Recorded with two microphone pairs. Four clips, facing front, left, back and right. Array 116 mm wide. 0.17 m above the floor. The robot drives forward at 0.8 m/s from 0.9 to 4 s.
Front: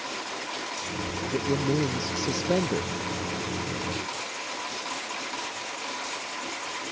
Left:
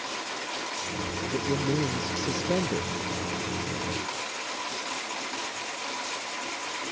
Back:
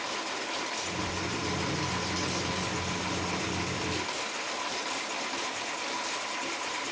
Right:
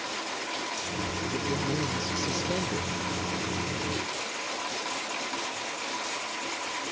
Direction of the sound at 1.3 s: 10° left.